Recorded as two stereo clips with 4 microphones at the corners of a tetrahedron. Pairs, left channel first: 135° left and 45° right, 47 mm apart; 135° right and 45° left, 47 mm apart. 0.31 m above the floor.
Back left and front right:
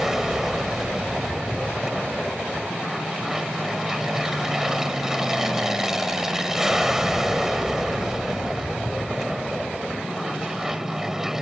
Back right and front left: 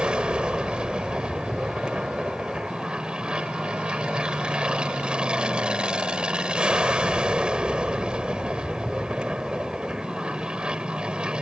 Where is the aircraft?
20° left.